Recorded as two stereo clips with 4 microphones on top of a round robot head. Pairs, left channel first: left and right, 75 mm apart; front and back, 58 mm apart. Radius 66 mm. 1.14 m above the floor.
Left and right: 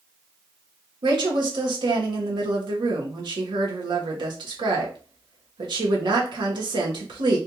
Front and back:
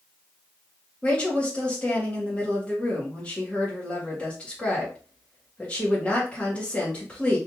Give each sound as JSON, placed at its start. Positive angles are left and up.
{"t": 1.0, "sound": "a woman speaking", "azimuth_deg": -75, "distance_m": 1.1}